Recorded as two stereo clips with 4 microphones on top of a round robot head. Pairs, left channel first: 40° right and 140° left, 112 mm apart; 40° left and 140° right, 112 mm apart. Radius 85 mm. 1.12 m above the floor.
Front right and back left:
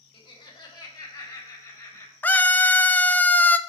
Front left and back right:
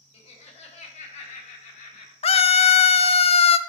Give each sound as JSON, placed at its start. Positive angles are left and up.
{"t": 0.1, "sound": "laughter", "azimuth_deg": 5, "distance_m": 1.8}
{"t": 2.2, "sound": "a scream", "azimuth_deg": 35, "distance_m": 0.7}